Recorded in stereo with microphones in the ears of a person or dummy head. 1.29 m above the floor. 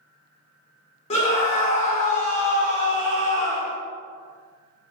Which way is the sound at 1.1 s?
30° left (ahead or behind).